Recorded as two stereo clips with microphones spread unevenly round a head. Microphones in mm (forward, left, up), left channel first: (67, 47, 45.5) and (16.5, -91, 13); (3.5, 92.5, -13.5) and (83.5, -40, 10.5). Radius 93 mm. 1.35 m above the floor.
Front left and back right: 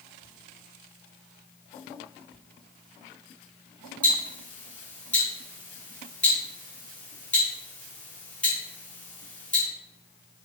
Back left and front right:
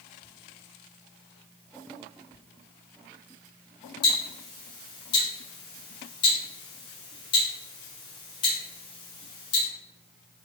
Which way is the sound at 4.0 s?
160° left.